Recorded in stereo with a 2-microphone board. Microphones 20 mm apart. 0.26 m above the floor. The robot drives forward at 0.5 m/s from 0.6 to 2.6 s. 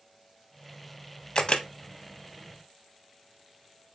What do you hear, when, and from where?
1.4 s a camera shutter: 45° left (ahead or behind), 0.5 m; by 1.7 s 55° left (ahead or behind), 0.5 m